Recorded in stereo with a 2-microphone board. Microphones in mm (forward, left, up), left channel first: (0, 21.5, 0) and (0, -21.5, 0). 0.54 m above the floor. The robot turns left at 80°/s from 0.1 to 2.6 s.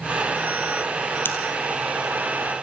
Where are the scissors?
55° left (ahead or behind), 4 m; by 1.4 s 65° left (ahead or behind), 4 m.